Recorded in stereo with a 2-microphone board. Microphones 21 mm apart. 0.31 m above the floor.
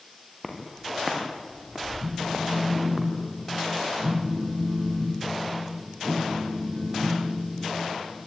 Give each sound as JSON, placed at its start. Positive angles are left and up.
{"t": 0.4, "sound": "footsteps", "side_deg": 5, "distance_m": 5.0}
{"t": 2.0, "sound": "a phone buzzing", "side_deg": -70, "distance_m": 5.0}